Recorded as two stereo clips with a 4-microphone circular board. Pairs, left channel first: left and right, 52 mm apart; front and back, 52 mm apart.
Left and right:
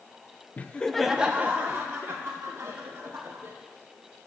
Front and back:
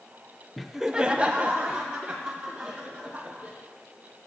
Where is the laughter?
85° left, 0.7 m; by 3.6 s 120° right, 2.5 m.